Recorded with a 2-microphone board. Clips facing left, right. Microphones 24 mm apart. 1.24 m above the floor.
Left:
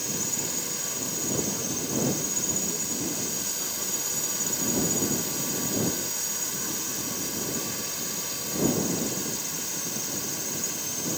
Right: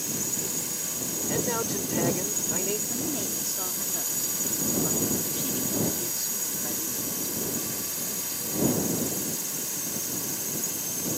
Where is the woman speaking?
45° right (ahead or behind).